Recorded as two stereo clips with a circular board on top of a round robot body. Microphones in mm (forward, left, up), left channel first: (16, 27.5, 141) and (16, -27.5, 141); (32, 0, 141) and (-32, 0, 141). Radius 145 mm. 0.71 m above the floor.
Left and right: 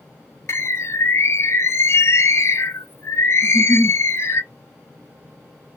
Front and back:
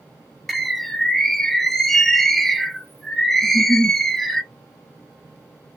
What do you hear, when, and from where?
0.5 s a bird: 85° left, 0.7 m
3.4 s a giggle: 30° right, 1.2 m